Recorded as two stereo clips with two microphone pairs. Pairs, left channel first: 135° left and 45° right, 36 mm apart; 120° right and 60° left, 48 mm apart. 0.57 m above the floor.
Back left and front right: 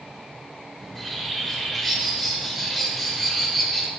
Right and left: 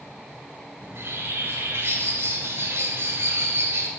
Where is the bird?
45° left, 2 m.